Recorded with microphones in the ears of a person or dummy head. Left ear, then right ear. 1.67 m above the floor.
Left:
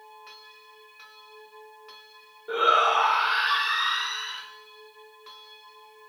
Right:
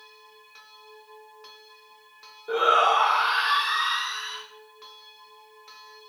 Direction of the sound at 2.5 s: 10° right (ahead or behind).